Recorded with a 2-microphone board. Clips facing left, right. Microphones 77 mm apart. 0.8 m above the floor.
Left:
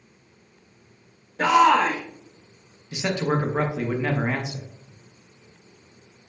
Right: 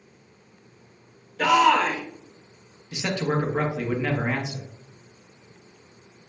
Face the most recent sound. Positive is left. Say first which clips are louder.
# left 1 dB
turn(degrees=15)  # may be behind; listen again after turning